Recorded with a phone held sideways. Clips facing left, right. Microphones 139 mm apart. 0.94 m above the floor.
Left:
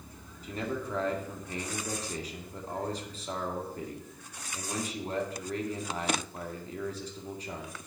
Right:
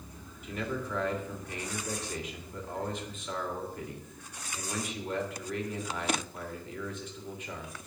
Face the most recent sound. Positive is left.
turn(degrees=35)  # may be behind; listen again after turning